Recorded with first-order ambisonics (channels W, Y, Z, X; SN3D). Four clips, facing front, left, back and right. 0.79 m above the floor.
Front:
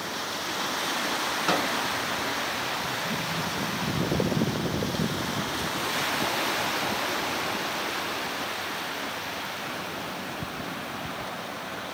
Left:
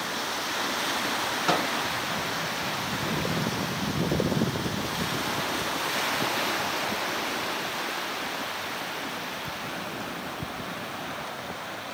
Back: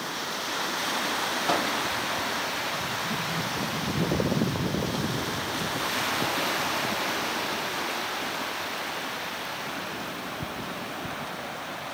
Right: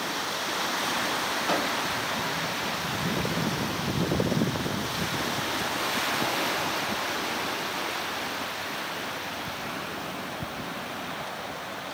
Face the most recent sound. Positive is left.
turn(degrees=50)